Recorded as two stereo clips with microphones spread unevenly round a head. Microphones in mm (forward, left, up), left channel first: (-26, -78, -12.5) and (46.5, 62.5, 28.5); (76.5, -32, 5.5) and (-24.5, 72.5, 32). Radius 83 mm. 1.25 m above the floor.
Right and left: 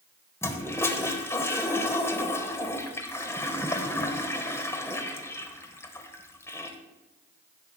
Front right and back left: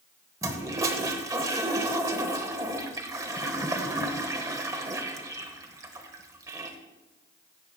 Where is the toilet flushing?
155° left, 1.1 m.